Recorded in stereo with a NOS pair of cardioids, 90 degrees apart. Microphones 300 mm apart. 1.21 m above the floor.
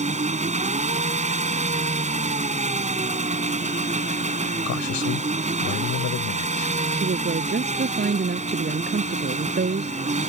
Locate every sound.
0.0 s an engine running: 25° right
4.7 s a man speaking: 65° left
6.9 s a woman speaking: 35° right